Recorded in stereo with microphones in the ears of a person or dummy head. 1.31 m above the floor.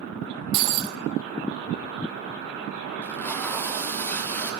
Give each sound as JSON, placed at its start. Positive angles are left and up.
{"t": 0.5, "sound": "breaking glass", "side_deg": -35, "distance_m": 0.9}
{"t": 3.0, "sound": "tape being pulled", "side_deg": 10, "distance_m": 1.3}